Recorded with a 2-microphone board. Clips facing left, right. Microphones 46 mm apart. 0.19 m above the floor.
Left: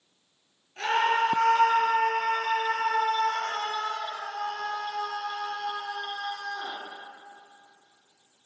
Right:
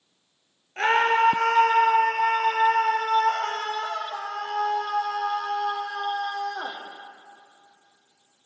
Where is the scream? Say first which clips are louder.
Right 4 dB; 45° right (ahead or behind), 3.5 m; by 6.8 s 65° right (ahead or behind), 8 m.